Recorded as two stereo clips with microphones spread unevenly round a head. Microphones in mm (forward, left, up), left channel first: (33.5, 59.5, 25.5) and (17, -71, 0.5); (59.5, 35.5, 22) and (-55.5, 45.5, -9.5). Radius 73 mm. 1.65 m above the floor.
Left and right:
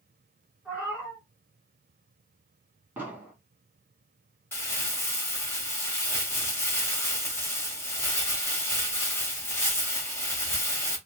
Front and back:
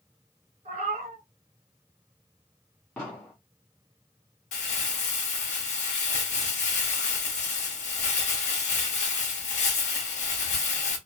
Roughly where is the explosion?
Ahead.